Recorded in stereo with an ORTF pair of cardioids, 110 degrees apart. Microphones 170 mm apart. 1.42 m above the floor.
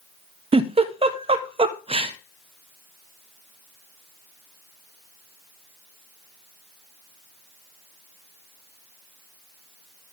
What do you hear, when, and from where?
0.5 s a giggle: 35° right, 1.2 m